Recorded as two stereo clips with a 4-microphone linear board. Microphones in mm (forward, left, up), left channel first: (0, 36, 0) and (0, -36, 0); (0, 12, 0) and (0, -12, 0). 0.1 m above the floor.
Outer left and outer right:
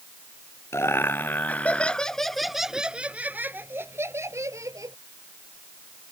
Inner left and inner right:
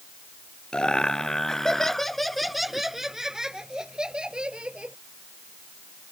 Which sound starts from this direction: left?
Laughter, at 0.7 s.